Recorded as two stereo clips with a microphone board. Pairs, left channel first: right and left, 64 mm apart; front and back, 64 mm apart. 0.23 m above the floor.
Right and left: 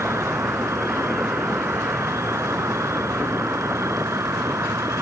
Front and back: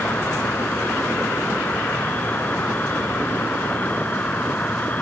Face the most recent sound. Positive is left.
turn(degrees=60)